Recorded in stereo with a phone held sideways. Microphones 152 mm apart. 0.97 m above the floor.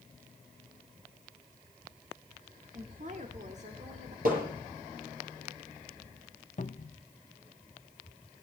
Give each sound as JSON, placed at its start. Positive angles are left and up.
{"t": 2.7, "sound": "a woman speaking", "side_deg": -55, "distance_m": 1.5}
{"t": 4.2, "sound": "hammering", "side_deg": -65, "distance_m": 6.0}
{"t": 6.6, "sound": "a cupboard door", "side_deg": 50, "distance_m": 0.8}